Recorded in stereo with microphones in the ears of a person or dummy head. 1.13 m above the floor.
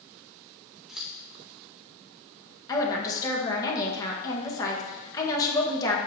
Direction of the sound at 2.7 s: 25° left (ahead or behind).